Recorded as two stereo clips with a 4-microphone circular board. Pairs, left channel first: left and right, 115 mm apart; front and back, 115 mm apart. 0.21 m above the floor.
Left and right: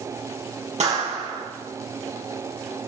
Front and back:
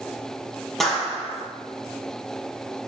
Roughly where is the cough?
I don't hear a cough.